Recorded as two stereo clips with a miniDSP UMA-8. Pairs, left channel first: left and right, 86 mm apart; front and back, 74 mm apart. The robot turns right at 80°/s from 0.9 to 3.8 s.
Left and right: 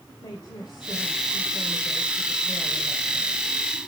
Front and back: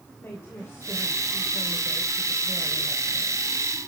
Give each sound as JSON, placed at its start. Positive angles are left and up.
{"t": 0.1, "sound": "a woman speaking", "azimuth_deg": 55, "distance_m": 2.5}